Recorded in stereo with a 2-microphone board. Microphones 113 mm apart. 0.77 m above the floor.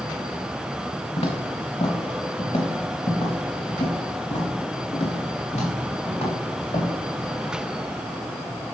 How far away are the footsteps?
About 2.5 m.